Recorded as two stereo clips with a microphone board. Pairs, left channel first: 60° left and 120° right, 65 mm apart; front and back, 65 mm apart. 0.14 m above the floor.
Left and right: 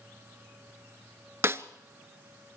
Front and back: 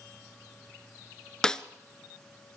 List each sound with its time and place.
1.4 s a snare drum: 80° right, 0.6 m